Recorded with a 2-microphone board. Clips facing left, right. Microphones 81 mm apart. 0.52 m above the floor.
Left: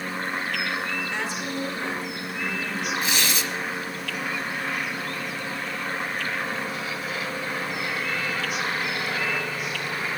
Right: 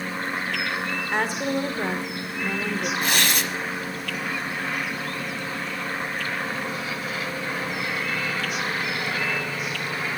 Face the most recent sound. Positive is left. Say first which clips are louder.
# right 2 dB
turn(degrees=-60)  # may be behind; listen again after turning